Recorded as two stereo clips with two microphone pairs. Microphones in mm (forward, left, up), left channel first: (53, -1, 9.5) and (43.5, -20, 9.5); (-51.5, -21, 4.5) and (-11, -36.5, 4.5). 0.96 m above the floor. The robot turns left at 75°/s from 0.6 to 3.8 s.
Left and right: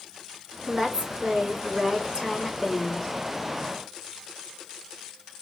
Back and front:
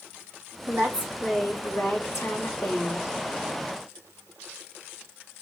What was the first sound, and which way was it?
A woman speaking, 65° right.